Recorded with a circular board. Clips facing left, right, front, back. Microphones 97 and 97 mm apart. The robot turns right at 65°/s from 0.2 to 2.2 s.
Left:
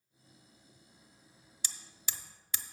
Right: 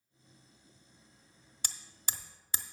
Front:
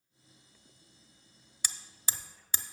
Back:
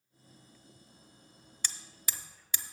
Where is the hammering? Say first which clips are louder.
Right 3 dB, front 2 dB; 80° right, 0.6 m; by 2.6 s 45° right, 0.6 m.